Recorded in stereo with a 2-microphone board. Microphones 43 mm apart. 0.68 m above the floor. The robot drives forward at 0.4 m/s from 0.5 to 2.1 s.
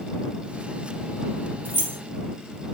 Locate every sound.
1.6 s keys jangling: 55° right (ahead or behind), 0.8 m